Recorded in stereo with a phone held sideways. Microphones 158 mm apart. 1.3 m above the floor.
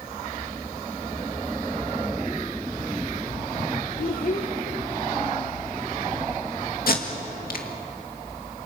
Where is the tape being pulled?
70° left (ahead or behind), 2 m.